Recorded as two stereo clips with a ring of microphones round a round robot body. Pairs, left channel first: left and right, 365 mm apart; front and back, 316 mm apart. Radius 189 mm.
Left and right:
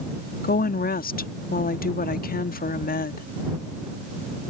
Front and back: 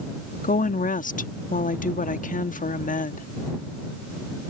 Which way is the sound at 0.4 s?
45° left.